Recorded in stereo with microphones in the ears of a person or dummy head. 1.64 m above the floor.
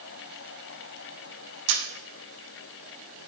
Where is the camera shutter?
80° right, 0.7 m.